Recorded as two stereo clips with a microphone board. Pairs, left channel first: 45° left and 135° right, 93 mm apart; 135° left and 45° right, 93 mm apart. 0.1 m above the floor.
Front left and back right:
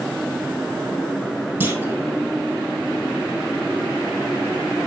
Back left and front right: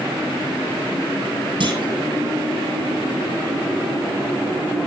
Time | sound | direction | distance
1.6 | a clunk | 70° right | 2.5 m